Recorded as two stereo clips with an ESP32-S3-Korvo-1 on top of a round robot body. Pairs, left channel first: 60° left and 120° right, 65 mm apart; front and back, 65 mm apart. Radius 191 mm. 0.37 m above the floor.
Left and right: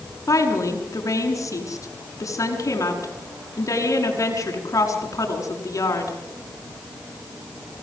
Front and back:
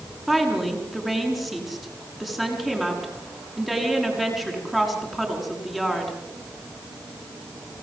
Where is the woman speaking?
90° left, 6 m.